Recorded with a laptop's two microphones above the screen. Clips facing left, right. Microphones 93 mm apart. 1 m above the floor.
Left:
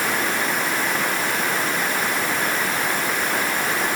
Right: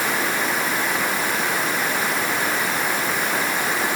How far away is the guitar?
No guitar in this recording.